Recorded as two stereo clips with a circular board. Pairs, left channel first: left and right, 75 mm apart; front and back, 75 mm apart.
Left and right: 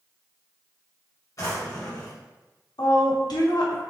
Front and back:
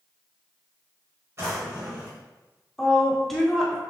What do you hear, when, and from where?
1.4 s a drawer: 130° left, 1.3 m
2.8 s a woman speaking: 85° left, 1.0 m